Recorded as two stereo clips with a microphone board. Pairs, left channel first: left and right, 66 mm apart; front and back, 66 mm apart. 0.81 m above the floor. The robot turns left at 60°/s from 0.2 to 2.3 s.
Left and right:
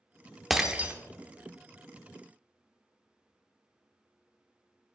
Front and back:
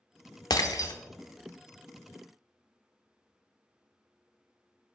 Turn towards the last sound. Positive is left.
turn(degrees=-110)